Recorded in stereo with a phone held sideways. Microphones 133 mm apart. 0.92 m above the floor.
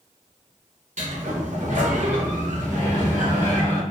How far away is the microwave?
About 1.4 m.